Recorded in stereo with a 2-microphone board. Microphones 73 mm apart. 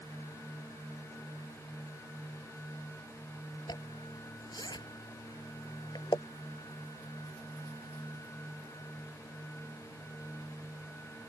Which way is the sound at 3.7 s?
80° left.